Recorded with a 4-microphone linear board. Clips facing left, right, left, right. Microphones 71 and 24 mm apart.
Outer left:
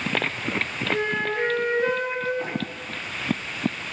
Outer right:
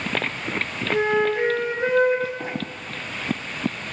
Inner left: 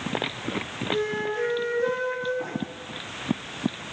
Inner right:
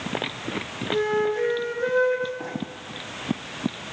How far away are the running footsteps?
About 1.9 m.